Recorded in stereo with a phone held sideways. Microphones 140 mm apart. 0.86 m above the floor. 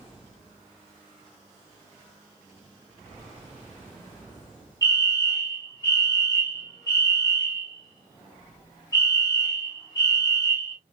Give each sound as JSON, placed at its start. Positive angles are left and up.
{"t": 4.8, "sound": "a fire alarm", "side_deg": 25, "distance_m": 1.5}